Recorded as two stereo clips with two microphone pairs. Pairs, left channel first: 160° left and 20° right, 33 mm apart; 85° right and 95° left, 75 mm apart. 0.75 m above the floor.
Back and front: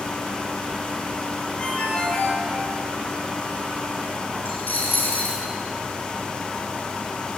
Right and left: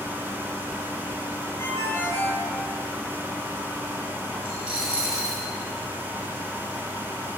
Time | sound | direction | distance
1.6 | a ringtone | 145° right | 9.5 m
4.5 | a dropped coin | 175° left | 8.5 m